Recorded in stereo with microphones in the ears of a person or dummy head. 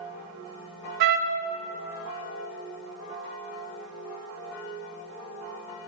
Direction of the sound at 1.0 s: 65° right (ahead or behind).